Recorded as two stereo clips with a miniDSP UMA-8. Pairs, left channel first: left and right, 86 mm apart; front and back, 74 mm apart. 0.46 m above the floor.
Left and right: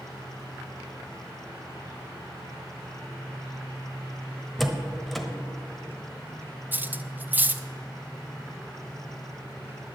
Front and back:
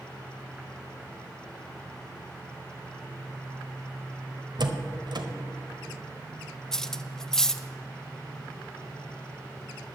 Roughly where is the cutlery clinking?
Right.